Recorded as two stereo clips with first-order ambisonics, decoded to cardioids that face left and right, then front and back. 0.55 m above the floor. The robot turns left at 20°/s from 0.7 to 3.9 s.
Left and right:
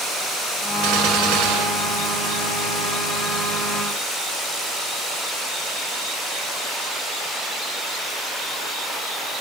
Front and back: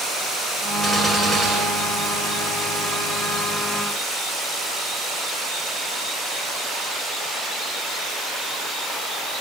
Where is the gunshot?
100° right, 1.2 m; by 2.5 s 135° right, 1.2 m.